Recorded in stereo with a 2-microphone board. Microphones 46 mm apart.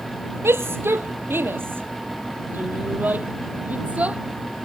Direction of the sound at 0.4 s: 60° right (ahead or behind).